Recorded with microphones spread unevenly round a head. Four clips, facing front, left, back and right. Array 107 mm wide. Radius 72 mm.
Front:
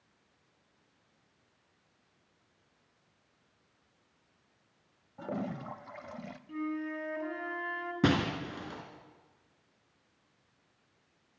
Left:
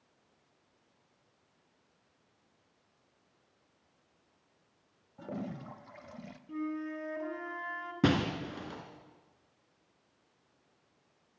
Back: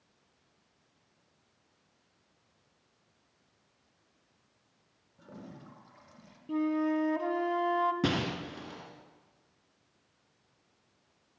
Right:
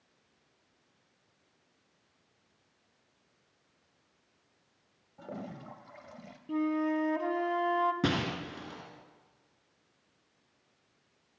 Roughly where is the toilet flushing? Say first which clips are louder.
Left 2 dB, front 12 dB; ahead left.